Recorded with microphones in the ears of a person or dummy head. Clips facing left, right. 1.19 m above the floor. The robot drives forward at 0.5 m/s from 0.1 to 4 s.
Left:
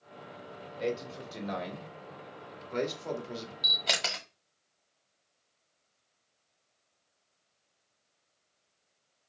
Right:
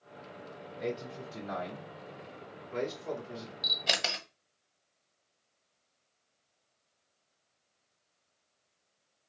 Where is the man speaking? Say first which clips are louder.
Left 3 dB; 40° left (ahead or behind), 3 m; by 3.5 s 65° left (ahead or behind), 2 m.